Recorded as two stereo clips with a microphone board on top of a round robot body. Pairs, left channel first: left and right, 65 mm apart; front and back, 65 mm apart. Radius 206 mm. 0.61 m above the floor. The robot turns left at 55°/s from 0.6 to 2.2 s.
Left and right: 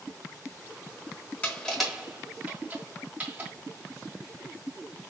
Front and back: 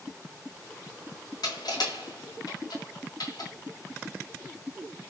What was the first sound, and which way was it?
Crushing, 20° left.